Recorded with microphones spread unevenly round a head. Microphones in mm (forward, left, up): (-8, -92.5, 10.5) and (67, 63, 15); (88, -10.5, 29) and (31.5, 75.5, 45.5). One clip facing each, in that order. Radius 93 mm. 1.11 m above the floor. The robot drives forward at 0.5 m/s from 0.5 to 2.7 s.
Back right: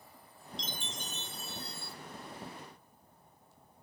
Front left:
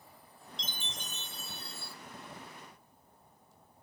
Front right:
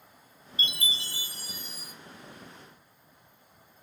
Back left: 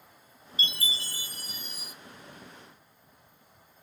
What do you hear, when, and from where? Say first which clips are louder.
0.6 s a chime: back right 3 dB, even; 60° left, 1.1 m; by 1.9 s 95° left, 1.0 m